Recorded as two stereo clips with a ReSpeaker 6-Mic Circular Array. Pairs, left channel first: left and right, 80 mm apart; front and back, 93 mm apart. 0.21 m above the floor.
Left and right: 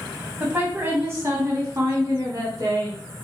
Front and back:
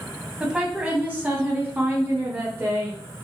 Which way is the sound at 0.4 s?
110° right.